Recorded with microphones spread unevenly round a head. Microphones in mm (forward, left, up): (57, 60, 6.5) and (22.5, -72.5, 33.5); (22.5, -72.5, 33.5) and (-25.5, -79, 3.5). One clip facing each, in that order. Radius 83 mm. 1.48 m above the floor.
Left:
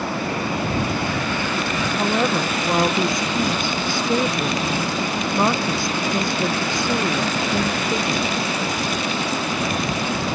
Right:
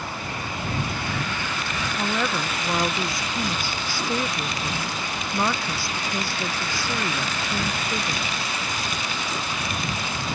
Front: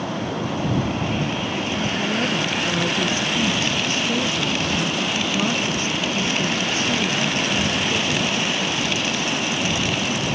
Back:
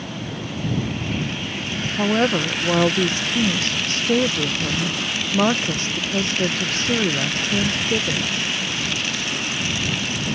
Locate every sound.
0.0 s running water: 50° left
2.0 s a woman speaking: 150° left